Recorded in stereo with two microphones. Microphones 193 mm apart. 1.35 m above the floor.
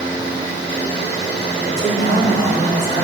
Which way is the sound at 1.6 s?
80° left.